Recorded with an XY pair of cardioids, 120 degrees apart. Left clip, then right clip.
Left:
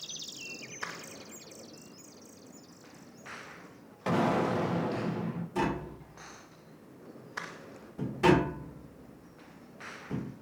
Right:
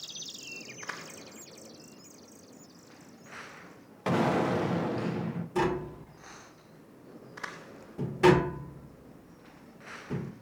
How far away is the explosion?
About 0.7 m.